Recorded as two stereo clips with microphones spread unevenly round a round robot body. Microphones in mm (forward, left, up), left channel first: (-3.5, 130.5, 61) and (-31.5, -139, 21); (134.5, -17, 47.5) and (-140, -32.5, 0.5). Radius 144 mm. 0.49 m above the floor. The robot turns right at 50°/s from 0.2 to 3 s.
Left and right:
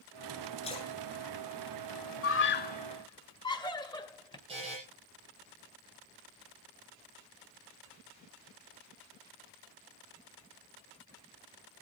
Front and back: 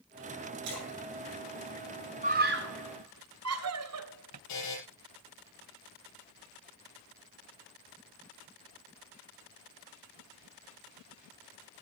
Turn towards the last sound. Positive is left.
turn(degrees=-25)